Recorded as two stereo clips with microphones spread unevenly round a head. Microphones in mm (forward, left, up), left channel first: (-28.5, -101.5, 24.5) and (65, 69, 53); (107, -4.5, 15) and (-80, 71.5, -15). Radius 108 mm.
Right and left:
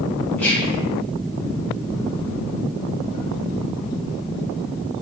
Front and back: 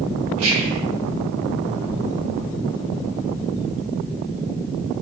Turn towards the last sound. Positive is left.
turn(degrees=160)